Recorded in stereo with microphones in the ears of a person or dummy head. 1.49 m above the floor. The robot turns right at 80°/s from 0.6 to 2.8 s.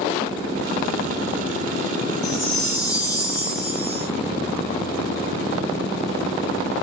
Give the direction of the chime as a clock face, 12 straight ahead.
9 o'clock.